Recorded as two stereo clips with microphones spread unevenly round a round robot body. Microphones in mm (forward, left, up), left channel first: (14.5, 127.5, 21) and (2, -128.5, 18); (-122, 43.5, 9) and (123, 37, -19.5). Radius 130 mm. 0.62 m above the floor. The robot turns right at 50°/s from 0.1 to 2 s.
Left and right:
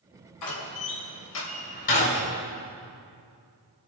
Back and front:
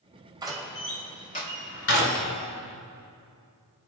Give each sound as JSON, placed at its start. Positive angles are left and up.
{"t": 0.4, "sound": "a door slam", "azimuth_deg": 70, "distance_m": 2.5}